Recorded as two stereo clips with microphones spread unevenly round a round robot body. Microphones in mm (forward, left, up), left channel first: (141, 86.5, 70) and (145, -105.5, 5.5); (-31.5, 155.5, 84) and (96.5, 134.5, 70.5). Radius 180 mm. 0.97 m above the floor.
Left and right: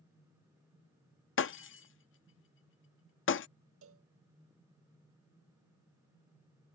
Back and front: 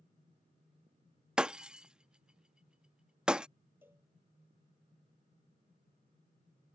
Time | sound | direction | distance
1.4 | breaking glass | 75° left | ?
3.8 | a cowbell | 90° right | ?